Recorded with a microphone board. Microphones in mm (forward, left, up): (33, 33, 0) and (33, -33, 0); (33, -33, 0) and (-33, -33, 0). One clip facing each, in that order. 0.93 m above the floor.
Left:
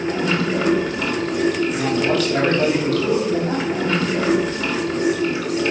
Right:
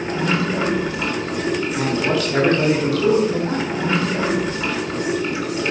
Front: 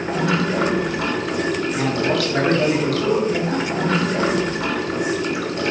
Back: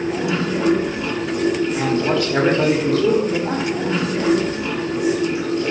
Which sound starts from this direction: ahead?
Running water, at 0.0 s.